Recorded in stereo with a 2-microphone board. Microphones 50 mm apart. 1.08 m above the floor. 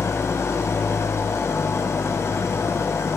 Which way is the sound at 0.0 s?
70° left (ahead or behind).